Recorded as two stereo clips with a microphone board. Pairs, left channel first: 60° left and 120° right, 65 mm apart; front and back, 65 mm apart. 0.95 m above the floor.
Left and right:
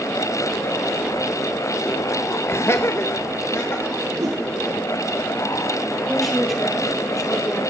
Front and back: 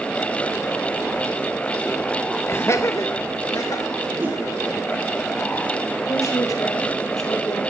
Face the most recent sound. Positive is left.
turn(degrees=-30)